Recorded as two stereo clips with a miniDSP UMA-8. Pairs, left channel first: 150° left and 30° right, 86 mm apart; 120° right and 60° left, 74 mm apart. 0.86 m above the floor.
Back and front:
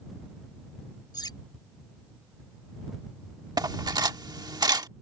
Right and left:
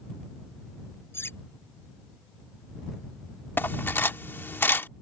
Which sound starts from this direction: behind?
Cutlery clinking, at 1.1 s.